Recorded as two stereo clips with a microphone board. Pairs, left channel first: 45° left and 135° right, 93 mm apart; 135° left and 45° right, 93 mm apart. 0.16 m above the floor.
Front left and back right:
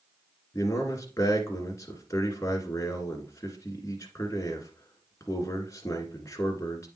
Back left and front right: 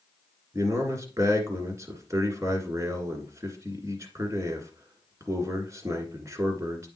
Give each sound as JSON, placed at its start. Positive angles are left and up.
{"t": 0.5, "sound": "a man speaking", "azimuth_deg": 0, "distance_m": 1.6}